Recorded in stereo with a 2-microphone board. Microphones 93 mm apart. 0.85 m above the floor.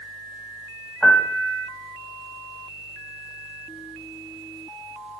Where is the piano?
5° left (ahead or behind), 2 m.